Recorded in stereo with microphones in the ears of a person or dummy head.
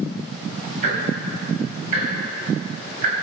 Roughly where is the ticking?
Right.